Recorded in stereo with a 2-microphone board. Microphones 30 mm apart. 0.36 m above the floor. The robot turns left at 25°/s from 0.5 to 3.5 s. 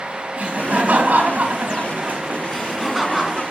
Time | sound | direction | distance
0.4 | laughter | 50° right | 3 m
2.5 | laughter | centre (ahead or behind) | 4 m